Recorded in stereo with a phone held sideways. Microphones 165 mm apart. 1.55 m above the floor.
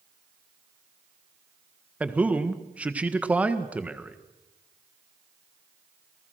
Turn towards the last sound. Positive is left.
turn(degrees=-10)  # may be behind; listen again after turning